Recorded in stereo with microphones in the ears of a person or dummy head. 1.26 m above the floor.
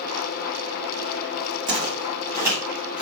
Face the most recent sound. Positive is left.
turn(degrees=0)  # may be behind; listen again after turning